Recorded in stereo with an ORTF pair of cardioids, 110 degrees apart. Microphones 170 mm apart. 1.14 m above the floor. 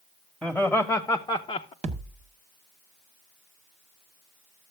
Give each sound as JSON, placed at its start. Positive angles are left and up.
{"t": 0.4, "sound": "laughter", "azimuth_deg": 0, "distance_m": 1.4}
{"t": 1.8, "sound": "a thud", "azimuth_deg": -40, "distance_m": 1.3}